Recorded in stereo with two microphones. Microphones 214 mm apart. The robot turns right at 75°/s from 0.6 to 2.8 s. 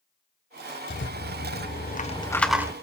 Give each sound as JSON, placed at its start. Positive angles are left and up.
{"t": 0.9, "sound": "a rattle", "side_deg": 60, "distance_m": 1.1}